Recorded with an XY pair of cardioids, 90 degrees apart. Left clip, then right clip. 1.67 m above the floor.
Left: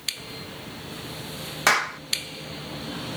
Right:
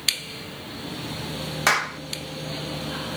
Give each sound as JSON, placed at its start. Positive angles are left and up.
{"t": 1.7, "sound": "a clap", "azimuth_deg": 5}